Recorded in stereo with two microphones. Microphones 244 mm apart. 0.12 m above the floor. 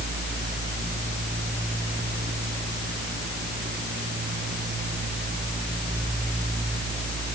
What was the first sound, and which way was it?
Only background noise.